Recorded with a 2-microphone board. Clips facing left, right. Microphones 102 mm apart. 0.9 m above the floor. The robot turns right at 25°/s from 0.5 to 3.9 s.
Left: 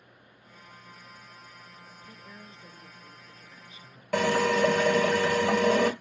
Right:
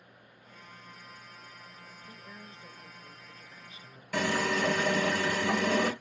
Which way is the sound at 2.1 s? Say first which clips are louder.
Even; 170° left.